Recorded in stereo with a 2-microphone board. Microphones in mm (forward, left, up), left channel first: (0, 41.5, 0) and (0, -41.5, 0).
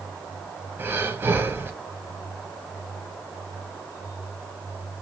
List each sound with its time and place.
0.8 s breathing: 30° right (ahead or behind), 0.9 m